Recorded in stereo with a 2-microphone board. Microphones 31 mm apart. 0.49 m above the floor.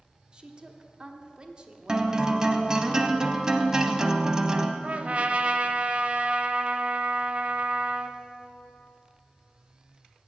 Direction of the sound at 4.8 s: 45° right (ahead or behind).